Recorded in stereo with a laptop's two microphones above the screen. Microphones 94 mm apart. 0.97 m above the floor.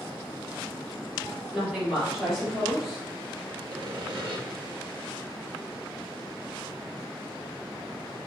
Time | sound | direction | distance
1.5 | a woman speaking | 5° right (ahead or behind) | 1.9 m
3.7 | sawing | 55° right (ahead or behind) | 0.9 m